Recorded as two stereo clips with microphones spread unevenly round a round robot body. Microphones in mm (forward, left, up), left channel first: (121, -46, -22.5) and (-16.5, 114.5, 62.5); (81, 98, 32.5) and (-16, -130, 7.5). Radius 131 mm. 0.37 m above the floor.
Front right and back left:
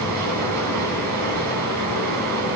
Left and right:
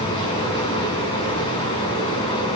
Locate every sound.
0.0 s running water: 140° left, 2 m